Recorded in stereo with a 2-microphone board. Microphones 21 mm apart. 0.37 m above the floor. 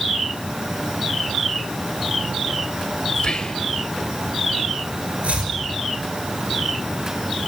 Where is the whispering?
45° left (ahead or behind), 1.7 m.